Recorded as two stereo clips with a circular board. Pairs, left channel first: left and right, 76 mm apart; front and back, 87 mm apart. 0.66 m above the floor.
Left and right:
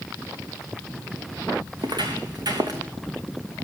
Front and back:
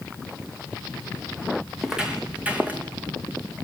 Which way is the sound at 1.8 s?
95° right.